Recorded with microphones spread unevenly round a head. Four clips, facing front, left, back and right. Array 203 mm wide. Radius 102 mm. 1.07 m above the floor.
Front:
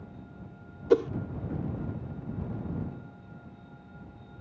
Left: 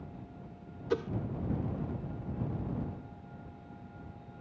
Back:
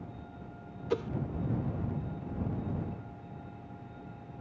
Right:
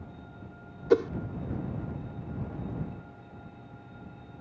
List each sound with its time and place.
0.9 s a whoosh: 40° right